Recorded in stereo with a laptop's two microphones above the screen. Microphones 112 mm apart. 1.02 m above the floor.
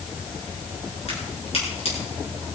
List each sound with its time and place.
1.1 s a crack: 70° left (ahead or behind), 8 m